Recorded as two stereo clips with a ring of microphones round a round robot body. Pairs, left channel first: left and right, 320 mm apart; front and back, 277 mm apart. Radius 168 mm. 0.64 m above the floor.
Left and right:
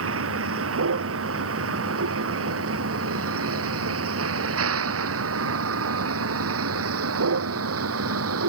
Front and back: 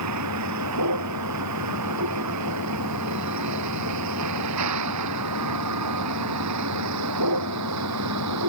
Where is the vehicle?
140° right.